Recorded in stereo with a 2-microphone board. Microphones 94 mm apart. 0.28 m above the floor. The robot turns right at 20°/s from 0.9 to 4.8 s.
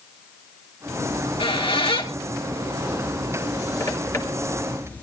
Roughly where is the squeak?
Left.